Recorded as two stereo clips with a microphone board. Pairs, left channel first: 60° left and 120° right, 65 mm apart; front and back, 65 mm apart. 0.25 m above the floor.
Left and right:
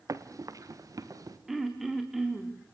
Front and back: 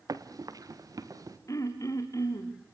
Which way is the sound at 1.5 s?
35° right.